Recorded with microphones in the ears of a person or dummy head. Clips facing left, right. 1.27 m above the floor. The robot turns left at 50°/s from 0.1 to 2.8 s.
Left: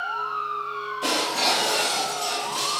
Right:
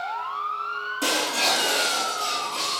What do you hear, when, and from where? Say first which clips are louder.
1.0 s breaking glass: even; 110° right, 7 m; by 2.8 s 160° left, 7 m